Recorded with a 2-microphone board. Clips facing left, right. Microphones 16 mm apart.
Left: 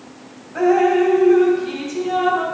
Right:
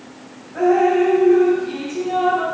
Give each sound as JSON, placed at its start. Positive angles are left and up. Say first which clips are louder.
{"t": 0.6, "sound": "dripping", "louder": "even", "side_deg": 50, "distance_m": 1.1}